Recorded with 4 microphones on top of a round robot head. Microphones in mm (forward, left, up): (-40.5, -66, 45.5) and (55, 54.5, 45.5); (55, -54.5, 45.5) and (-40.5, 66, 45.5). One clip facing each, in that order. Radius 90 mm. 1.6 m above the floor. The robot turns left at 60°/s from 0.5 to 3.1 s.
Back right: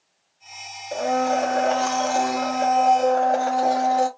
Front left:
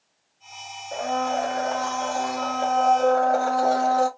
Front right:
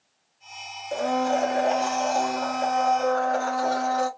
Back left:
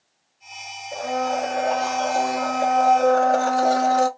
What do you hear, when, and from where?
0.9 s a blender: 65° right, 0.6 m; by 4.1 s 160° left, 0.6 m